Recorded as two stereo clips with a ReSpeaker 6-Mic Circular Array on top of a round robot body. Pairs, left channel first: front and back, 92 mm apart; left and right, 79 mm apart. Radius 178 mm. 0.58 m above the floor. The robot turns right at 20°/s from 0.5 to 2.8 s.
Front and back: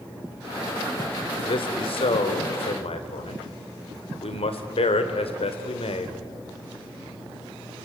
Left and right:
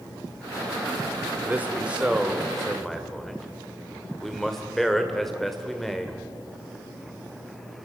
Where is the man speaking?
25° right, 2 m; by 6.2 s 5° left, 2 m.